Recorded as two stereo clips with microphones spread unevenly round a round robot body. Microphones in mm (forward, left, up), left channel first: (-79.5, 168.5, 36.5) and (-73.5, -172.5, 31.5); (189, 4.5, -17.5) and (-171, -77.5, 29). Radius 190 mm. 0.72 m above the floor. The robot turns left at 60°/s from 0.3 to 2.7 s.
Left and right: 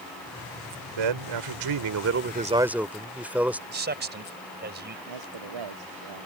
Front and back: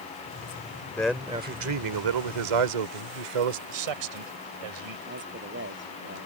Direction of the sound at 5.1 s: 105° right.